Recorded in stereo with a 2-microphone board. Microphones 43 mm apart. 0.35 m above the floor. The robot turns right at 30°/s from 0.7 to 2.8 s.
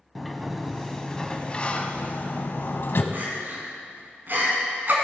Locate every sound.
0.1 s a sliding door: straight ahead, 0.7 m; by 3.0 s 65° left, 0.7 m
3.1 s crying: 50° right (ahead or behind), 1.9 m